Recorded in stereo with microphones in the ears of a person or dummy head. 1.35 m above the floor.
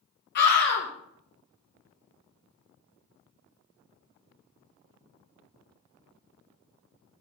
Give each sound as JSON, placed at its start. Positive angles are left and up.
{"t": 0.3, "sound": "a scream", "side_deg": 60, "distance_m": 1.6}